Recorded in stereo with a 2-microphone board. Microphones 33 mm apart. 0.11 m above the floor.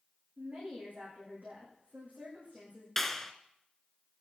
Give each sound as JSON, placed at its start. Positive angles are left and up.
{"t": 0.4, "sound": "a woman speaking", "side_deg": -50, "distance_m": 8.0}
{"t": 3.0, "sound": "a clap", "side_deg": 10, "distance_m": 1.3}